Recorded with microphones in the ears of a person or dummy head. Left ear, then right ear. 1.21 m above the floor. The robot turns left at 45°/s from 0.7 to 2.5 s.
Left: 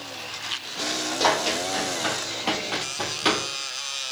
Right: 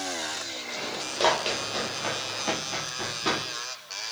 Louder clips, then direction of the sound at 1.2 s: Left 1 dB; 30° right (ahead or behind).